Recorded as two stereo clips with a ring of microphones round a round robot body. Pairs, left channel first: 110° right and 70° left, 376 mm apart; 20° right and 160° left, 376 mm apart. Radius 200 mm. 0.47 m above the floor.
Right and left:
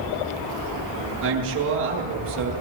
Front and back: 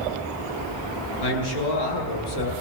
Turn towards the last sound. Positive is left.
turn(degrees=5)